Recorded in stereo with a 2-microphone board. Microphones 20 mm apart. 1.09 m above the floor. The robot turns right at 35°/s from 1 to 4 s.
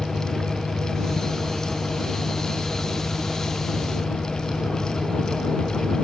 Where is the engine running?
20° right; by 6.0 s 85° left.